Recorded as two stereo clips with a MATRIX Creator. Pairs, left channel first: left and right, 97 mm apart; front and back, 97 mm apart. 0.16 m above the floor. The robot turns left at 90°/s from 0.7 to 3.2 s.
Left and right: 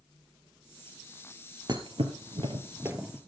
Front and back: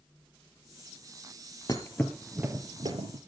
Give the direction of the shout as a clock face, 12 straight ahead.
I don't hear a shout.